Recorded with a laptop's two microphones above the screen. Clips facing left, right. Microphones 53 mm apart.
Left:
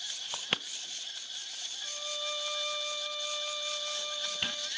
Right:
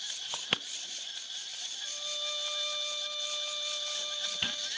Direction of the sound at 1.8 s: 20° left (ahead or behind).